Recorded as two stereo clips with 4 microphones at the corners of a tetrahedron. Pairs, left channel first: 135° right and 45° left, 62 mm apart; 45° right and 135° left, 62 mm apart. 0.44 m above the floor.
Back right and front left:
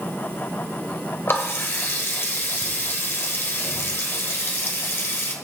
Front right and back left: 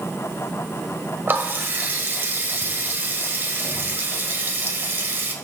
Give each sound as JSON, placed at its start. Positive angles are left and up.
{"t": 1.3, "sound": "a running tap", "azimuth_deg": -175, "distance_m": 1.2}